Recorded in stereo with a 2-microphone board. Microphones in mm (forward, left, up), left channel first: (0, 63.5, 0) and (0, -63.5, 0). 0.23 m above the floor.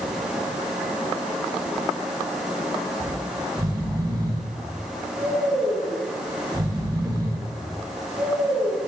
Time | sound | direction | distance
3.0 | snoring | 30° right (ahead or behind) | 3.5 m